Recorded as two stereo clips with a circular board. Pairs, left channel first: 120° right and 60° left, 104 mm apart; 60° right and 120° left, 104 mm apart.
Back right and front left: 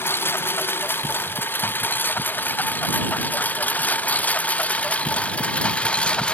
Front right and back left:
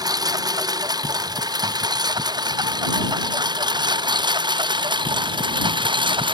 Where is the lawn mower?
170° left; by 6.3 s 160° left.